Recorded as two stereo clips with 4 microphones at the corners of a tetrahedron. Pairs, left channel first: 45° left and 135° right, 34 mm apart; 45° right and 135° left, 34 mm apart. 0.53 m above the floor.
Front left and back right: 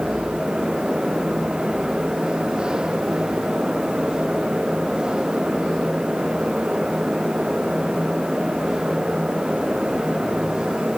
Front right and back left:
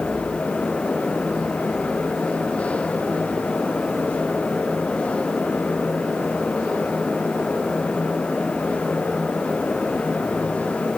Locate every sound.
Only background noise.